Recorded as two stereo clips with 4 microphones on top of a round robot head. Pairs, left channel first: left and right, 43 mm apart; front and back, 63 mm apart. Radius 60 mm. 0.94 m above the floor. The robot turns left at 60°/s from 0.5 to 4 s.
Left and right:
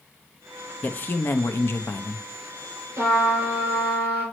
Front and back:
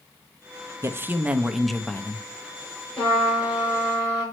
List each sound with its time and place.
0.8 s a man speaking: 145° left, 0.8 m; by 2.2 s 60° left, 0.8 m
3.0 s a trumpet: 70° right, 3 m; by 4.2 s 135° right, 3 m